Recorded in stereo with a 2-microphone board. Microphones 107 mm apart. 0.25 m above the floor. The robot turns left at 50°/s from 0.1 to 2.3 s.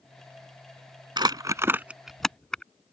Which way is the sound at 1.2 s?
45° right (ahead or behind).